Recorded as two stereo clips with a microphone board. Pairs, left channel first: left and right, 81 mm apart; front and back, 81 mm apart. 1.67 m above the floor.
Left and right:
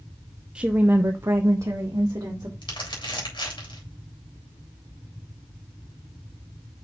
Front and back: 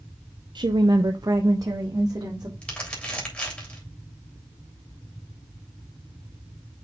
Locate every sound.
0.6 s a woman speaking: 170° right, 0.6 m; by 2.5 s 135° right, 1.6 m
2.6 s crumpling: 75° left, 3.5 m